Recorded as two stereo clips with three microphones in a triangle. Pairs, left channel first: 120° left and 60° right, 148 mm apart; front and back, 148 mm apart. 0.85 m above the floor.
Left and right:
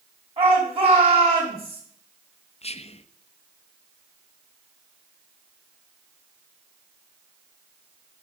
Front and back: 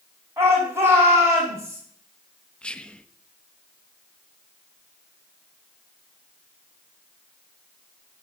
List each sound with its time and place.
0.4 s a shout: 110° right, 5 m
2.6 s whispering: 80° left, 0.5 m